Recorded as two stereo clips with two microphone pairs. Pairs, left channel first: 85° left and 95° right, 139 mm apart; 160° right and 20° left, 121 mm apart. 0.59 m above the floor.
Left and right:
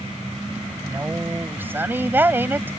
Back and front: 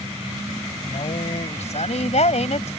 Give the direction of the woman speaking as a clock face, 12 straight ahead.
6 o'clock.